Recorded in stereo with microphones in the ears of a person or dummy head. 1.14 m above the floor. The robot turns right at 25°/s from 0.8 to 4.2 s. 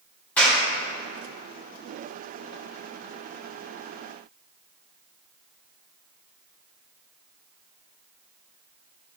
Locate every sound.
0.4 s a clap: 15° left (ahead or behind), 3 m